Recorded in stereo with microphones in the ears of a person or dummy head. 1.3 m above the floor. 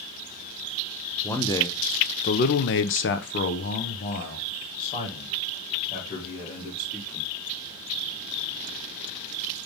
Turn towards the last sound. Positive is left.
turn(degrees=30)  # may be behind; listen again after turning